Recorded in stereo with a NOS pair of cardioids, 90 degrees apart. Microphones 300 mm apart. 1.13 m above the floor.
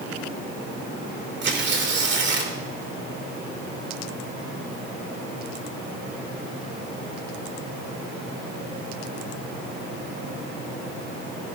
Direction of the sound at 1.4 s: 40° right.